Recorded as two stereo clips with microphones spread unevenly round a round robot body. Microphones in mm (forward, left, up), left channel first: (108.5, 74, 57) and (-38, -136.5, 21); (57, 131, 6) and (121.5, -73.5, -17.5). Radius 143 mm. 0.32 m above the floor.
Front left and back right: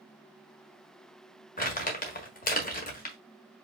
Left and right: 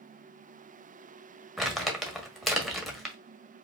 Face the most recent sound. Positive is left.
turn(degrees=10)